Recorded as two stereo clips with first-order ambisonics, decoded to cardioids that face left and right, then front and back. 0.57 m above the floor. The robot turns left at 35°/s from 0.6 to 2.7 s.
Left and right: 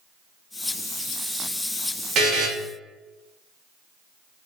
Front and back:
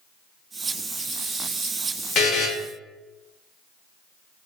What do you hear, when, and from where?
2.1 s a buzzer: 40° right, 0.7 m; by 2.5 s 50° right, 0.7 m